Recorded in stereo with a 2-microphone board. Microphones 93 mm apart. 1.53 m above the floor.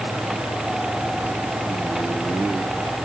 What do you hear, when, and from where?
Only background noise.